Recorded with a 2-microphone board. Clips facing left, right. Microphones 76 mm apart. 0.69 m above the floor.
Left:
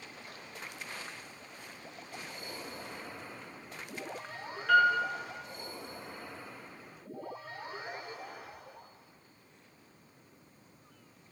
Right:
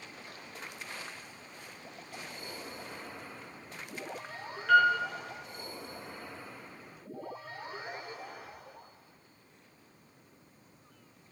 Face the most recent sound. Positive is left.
turn(degrees=0)  # may be behind; listen again after turning